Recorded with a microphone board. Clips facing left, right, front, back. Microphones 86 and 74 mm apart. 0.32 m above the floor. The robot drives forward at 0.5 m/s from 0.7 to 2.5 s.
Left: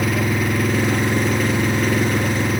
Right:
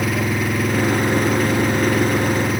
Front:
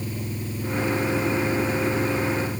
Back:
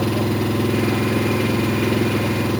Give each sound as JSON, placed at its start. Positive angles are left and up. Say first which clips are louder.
{"t": 0.0, "sound": "an engine running", "louder": "even, back 12 dB", "azimuth_deg": 180}